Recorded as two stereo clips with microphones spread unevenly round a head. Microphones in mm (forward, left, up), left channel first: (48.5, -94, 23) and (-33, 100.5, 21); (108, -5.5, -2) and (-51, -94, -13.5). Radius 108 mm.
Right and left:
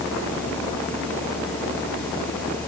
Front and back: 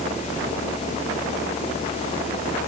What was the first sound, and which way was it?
Only background noise.